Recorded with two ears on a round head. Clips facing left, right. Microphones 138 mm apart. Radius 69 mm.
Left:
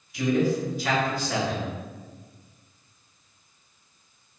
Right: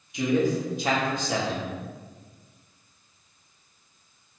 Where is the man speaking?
20° right (ahead or behind), 0.7 m.